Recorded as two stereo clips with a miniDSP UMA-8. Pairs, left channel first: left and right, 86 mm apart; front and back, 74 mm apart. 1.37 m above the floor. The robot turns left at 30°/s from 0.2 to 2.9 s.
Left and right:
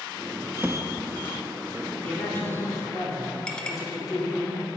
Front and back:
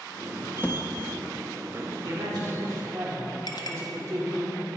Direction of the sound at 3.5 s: 10° left.